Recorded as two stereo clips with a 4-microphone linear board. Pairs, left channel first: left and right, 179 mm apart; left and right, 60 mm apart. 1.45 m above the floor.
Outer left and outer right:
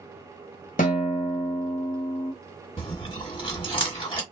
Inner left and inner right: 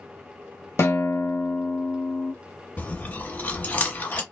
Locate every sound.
0.8 s a guitar: 50° left (ahead or behind), 1.0 m
2.8 s chewing: 30° left (ahead or behind), 1.5 m